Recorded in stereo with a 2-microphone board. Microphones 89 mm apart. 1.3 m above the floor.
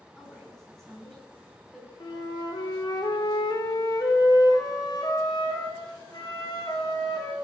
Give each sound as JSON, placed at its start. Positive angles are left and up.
{"t": 0.2, "sound": "a woman speaking", "side_deg": 5, "distance_m": 9.5}
{"t": 2.0, "sound": "a flute", "side_deg": 45, "distance_m": 4.0}